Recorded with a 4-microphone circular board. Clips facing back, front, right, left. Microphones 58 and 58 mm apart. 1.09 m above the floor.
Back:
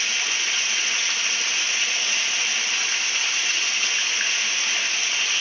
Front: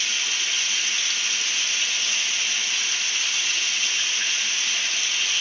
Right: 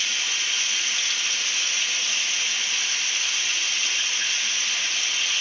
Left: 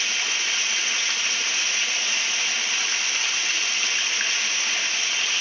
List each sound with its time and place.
0.0 s running water: 130° left, 1.0 m